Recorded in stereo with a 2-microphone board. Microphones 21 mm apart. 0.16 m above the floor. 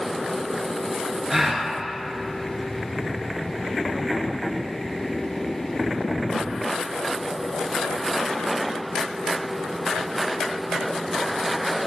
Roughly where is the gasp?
Right.